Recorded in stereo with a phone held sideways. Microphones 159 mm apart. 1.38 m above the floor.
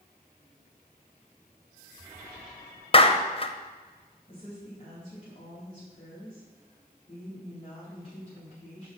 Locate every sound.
2.9 s a clap: 35° left (ahead or behind), 0.7 m
4.3 s a woman speaking: 40° left (ahead or behind), 4 m